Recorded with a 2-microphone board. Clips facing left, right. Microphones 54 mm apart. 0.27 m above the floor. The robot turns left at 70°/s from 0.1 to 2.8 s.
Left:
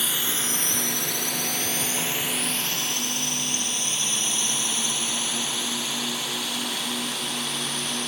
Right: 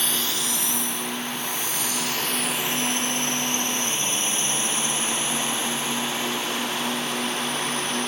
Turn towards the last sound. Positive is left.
turn(degrees=-35)  # may be behind; listen again after turning